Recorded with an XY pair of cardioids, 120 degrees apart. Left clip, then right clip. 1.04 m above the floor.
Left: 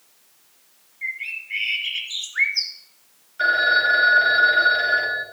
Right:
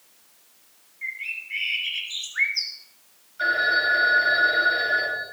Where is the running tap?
No running tap in this recording.